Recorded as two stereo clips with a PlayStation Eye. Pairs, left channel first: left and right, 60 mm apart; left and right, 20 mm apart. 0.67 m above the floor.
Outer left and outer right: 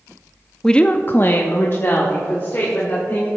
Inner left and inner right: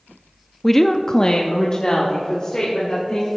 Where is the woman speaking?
10° left (ahead or behind), 0.5 m; by 3.3 s 35° left (ahead or behind), 2.5 m.